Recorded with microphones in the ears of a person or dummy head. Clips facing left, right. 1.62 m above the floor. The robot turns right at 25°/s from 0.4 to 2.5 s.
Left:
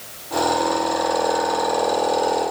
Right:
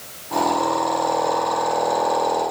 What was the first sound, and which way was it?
Only background noise.